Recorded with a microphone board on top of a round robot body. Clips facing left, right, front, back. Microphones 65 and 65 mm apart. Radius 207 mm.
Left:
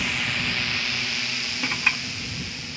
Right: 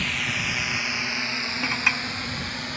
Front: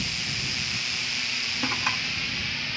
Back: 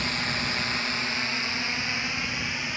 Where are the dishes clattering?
10° right.